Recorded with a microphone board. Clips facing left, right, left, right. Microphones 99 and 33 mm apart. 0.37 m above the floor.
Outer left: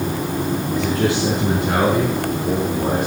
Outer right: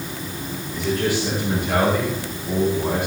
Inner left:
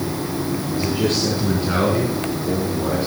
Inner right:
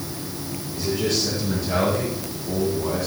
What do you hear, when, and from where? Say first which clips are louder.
0.7 s a man speaking: outer left 1 dB, inner left 2 dB; 75° left (ahead or behind), 4.5 m; by 3.1 s 70° left (ahead or behind), 5.5 m